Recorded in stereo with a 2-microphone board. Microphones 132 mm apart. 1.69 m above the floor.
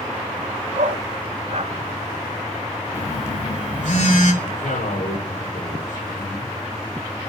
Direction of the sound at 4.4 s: 75° left (ahead or behind).